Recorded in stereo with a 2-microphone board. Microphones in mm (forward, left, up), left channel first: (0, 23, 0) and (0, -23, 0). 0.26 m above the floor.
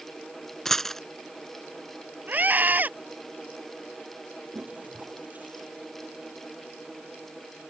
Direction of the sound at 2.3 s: 35° right (ahead or behind).